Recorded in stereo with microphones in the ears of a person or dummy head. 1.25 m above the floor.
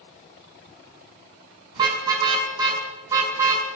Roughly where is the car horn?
Right.